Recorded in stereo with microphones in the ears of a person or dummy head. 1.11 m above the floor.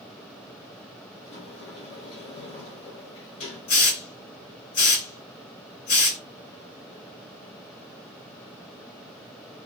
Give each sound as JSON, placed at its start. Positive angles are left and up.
{"t": 1.2, "sound": "a sliding door", "side_deg": 60, "distance_m": 3.0}
{"t": 3.7, "sound": "a hiss", "side_deg": 75, "distance_m": 2.5}